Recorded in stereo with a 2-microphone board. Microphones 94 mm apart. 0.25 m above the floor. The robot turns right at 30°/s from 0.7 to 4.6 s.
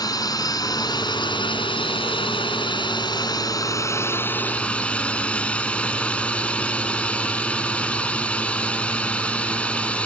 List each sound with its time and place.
0.0 s a drone: 50° left; by 10.1 s 165° left